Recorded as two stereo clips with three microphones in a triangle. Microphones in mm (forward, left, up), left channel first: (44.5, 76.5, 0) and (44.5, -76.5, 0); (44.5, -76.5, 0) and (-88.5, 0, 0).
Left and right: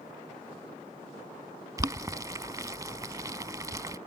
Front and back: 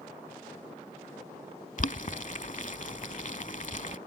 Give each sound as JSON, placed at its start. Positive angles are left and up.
{"t": 1.8, "sound": "boiling", "azimuth_deg": -25}